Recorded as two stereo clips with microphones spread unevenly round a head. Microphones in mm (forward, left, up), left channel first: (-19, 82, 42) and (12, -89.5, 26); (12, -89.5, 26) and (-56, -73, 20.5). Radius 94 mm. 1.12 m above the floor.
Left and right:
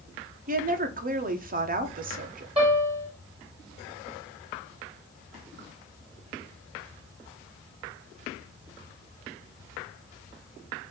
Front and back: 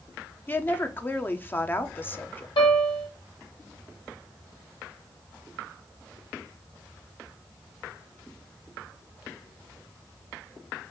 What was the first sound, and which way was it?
A woman speaking, 75° right.